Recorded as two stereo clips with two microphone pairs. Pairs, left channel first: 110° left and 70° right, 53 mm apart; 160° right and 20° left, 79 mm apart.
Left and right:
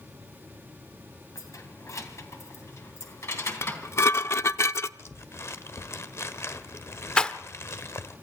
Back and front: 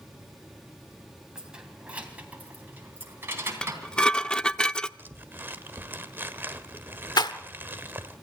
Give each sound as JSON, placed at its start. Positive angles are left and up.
{"t": 1.4, "sound": "keys jangling", "azimuth_deg": 100, "distance_m": 3.0}
{"t": 3.6, "sound": "dishes clattering", "azimuth_deg": 120, "distance_m": 0.5}
{"t": 5.0, "sound": "crumpling", "azimuth_deg": 80, "distance_m": 1.3}
{"t": 7.2, "sound": "a rattle", "azimuth_deg": -175, "distance_m": 1.0}